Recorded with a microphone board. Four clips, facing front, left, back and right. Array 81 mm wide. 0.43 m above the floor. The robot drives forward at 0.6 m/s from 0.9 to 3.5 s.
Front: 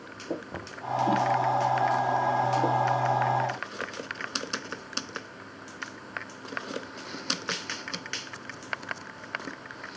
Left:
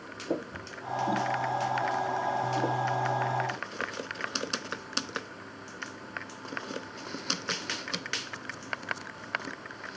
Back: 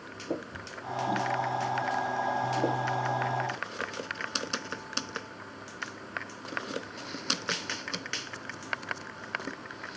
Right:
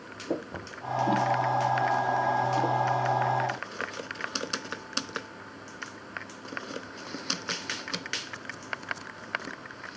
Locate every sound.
0.5 s knocking: 35° right